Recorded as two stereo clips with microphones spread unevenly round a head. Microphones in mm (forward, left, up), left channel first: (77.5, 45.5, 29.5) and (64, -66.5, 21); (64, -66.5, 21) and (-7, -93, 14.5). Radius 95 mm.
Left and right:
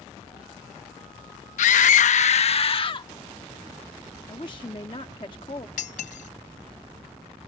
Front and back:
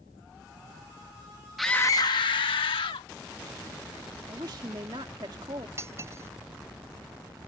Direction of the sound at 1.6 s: 115° left.